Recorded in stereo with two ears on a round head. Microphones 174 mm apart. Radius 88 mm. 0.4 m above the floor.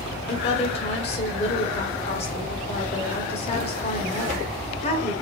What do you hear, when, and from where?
0.3 s a woman speaking: 35° left (ahead or behind), 1.6 m